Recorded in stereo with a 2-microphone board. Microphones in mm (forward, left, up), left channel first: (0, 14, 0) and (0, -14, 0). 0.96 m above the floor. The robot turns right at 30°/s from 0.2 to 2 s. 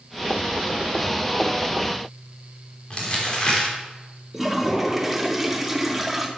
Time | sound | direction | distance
2.9 | crumpling | 35° left (ahead or behind) | 3.5 m
4.3 | a toilet flushing | 5° right (ahead or behind) | 1.4 m